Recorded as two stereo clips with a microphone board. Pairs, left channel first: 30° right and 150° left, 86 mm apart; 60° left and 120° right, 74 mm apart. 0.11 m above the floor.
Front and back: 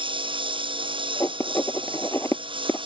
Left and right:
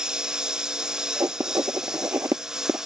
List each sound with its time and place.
0.0 s a lawn mower: 160° left
1.2 s writing: 80° right